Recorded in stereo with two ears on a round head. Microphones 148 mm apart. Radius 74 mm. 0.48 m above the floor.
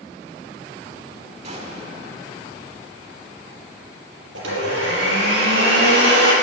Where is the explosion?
40° right (ahead or behind), 1.8 m.